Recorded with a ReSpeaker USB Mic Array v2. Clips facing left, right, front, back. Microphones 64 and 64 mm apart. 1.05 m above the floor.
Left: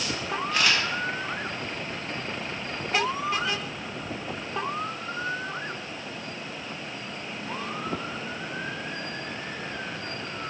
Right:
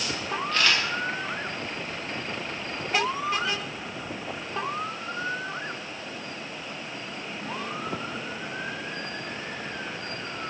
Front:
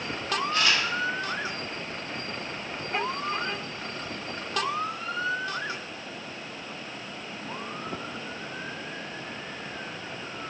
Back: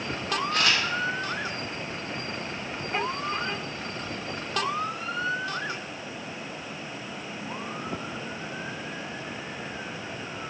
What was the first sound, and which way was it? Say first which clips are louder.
A camera shutter: even, even; 165° left.